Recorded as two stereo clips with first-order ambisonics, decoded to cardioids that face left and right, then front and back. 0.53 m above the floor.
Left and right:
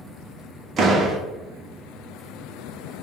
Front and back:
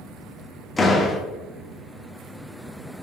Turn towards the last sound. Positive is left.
turn(degrees=-65)